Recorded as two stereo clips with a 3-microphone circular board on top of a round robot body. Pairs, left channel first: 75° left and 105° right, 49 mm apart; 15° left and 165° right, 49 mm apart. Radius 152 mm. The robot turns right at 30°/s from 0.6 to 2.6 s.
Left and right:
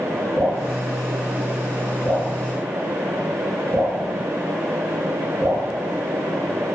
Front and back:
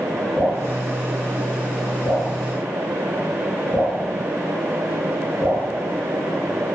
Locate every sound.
0.4 s dripping: 40° left, 1.6 m; by 6.7 s 100° left, 1.6 m